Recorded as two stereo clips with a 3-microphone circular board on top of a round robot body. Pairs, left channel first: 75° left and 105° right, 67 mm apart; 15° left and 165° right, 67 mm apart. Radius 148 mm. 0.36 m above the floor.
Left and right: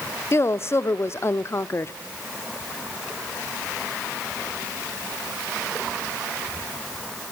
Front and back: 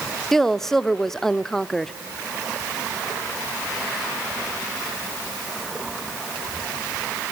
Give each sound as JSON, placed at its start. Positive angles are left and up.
{"t": 0.3, "sound": "a woman speaking", "azimuth_deg": 95, "distance_m": 1.0}